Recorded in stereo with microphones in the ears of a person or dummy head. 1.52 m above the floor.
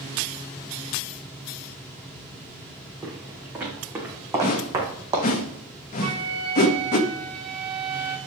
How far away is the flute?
About 4.5 m.